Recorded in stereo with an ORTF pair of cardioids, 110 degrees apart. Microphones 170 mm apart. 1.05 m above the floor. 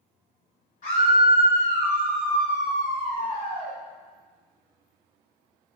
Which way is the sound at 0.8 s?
55° left.